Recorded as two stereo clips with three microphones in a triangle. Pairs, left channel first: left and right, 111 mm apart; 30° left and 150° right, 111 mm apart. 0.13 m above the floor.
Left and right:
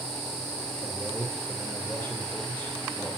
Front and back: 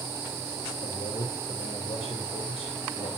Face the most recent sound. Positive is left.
turn(degrees=15)